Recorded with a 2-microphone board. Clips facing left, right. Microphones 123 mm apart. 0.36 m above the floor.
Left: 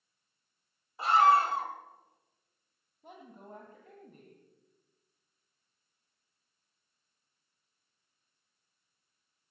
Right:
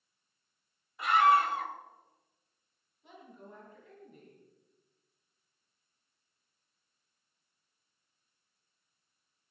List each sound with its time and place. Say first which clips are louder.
1.0 s a scream: left 1 dB; 30° left (ahead or behind), 2 m
3.0 s a woman speaking: left 2 dB; 45° left (ahead or behind), 2.5 m